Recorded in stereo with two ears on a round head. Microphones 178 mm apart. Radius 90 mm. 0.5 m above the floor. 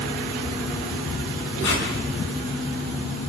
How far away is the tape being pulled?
About 6 m.